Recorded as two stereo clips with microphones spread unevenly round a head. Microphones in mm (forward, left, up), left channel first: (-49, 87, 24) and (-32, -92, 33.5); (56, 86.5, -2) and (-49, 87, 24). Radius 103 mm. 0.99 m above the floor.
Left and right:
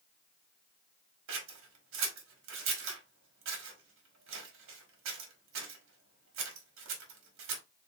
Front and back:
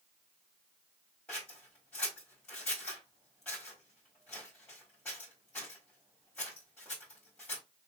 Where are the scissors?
85° right, 1.2 m.